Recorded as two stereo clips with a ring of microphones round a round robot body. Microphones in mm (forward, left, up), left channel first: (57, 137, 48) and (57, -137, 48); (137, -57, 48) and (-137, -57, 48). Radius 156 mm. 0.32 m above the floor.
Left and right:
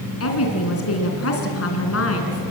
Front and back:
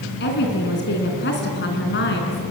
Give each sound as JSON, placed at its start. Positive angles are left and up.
{"t": 0.2, "sound": "a woman speaking", "azimuth_deg": 55, "distance_m": 3.5}